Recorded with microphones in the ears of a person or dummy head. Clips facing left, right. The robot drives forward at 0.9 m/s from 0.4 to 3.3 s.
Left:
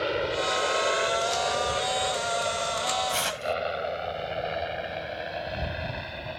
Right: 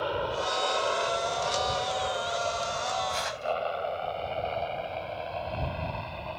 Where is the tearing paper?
45° left (ahead or behind).